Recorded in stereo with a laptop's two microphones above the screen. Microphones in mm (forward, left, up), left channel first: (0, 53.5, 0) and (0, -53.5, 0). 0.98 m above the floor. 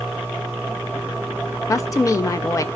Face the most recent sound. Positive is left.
turn(degrees=30)  # may be behind; listen again after turning